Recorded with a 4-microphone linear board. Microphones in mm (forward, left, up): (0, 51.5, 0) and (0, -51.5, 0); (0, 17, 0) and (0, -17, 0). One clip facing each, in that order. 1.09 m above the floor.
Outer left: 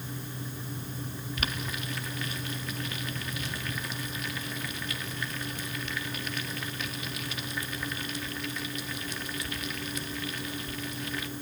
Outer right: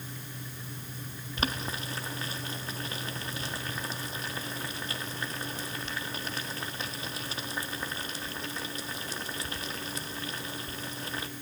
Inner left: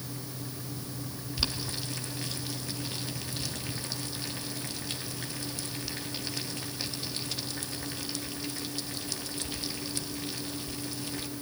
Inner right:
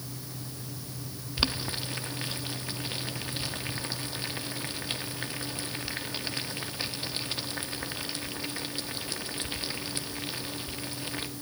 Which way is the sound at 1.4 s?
35° right (ahead or behind).